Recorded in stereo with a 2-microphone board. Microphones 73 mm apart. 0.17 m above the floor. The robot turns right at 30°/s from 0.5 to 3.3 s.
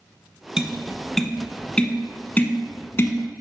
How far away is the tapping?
About 0.7 m.